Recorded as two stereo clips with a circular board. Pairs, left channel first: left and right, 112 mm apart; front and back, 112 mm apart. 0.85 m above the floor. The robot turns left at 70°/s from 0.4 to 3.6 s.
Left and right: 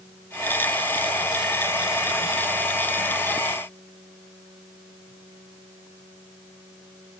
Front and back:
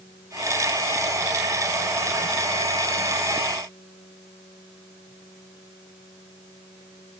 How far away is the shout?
No shout in this recording.